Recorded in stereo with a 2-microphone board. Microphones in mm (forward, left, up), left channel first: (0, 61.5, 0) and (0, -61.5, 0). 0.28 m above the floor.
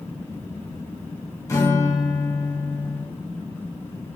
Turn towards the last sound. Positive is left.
turn(degrees=25)  # may be behind; listen again after turning